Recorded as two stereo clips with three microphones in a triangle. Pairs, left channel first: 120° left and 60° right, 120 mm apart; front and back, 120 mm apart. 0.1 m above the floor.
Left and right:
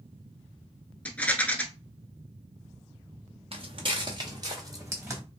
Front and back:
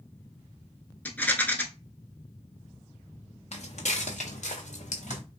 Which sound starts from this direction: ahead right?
Footsteps, at 3.5 s.